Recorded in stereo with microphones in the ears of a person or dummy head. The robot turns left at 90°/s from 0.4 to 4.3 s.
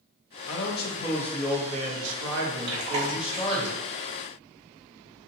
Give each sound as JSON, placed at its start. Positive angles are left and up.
{"t": 0.5, "sound": "a man speaking", "azimuth_deg": 75, "distance_m": 0.7}
{"t": 2.7, "sound": "chewing", "side_deg": -80, "distance_m": 0.8}